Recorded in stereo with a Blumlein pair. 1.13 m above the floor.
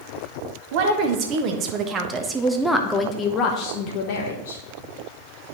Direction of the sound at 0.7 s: 45° right.